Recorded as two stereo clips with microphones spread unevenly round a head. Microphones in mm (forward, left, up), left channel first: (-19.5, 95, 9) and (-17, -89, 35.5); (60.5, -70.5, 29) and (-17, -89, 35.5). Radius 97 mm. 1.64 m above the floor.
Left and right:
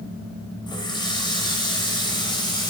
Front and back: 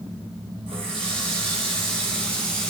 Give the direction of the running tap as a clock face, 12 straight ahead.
7 o'clock.